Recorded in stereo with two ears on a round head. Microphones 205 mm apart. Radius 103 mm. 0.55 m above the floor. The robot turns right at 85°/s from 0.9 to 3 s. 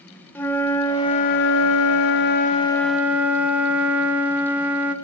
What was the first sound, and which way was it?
A flute, 10° left.